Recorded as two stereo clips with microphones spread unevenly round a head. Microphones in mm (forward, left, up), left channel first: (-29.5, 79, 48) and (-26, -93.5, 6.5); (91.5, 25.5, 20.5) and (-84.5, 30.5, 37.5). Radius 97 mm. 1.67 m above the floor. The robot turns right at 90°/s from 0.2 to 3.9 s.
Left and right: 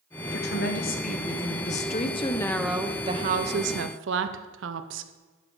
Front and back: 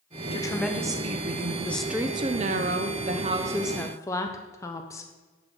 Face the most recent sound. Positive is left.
turn(degrees=-80)